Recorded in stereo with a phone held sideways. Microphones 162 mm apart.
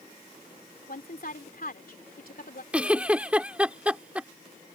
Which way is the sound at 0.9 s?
65° left (ahead or behind).